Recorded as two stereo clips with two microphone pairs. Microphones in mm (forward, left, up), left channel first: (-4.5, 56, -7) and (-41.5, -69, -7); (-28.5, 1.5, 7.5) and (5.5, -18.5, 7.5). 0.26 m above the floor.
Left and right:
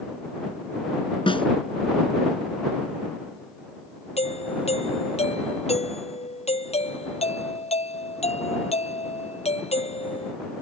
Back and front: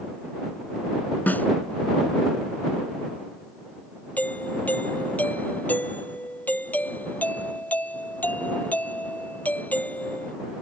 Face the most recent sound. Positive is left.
turn(degrees=105)